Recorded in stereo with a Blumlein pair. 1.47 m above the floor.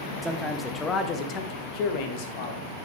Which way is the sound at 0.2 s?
10° right.